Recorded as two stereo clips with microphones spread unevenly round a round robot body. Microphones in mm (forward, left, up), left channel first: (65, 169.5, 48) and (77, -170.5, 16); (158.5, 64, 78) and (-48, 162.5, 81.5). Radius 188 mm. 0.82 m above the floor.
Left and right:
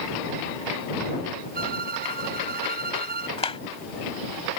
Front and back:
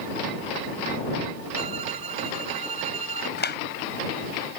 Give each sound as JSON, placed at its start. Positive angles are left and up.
{"t": 1.6, "sound": "a violin", "azimuth_deg": -155}
{"t": 3.4, "sound": "a clap", "azimuth_deg": 20}